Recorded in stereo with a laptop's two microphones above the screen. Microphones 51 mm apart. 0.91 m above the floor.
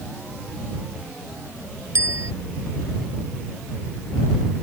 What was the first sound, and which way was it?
A bicycle bell, 65° right (ahead or behind).